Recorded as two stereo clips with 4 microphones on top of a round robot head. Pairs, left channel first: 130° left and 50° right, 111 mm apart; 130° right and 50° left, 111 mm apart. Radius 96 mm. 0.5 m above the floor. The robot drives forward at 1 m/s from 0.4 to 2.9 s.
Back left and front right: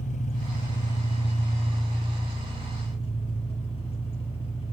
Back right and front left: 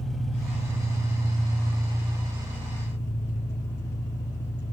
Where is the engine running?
140° left, 1.3 m; by 4.7 s 165° left, 3.5 m.